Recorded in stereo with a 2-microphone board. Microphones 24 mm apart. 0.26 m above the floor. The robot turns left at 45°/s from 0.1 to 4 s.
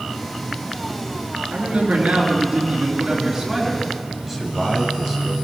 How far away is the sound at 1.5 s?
About 4.5 m.